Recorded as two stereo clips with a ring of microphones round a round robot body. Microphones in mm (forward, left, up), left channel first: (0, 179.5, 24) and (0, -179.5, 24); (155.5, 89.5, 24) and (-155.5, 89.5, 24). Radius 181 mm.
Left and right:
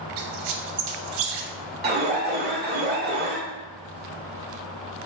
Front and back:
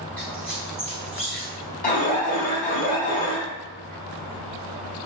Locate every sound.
0.2 s a squeak: 85° right, 0.5 m
1.8 s an alarm: 50° right, 0.8 m